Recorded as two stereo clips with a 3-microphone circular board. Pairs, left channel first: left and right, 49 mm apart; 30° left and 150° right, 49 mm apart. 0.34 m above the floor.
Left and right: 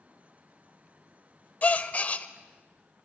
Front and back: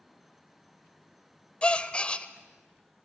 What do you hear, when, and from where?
1.6 s a gasp: 70° left, 1.0 m